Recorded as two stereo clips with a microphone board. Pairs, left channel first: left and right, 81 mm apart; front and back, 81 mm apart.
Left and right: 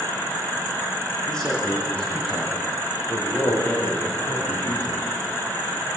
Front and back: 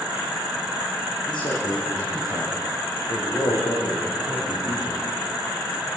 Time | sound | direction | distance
1.3 | a man speaking | 10° left | 7.5 m